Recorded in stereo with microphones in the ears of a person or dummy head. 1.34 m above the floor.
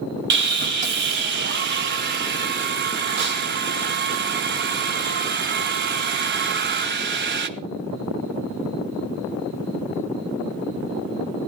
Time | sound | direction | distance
0.3 | sawing | 50° right (ahead or behind) | 1.0 m